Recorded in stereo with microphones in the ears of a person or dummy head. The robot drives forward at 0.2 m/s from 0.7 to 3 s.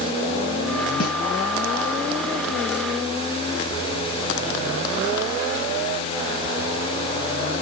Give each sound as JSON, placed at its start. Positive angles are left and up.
{"t": 1.0, "sound": "a snare drum", "side_deg": 50, "distance_m": 2.5}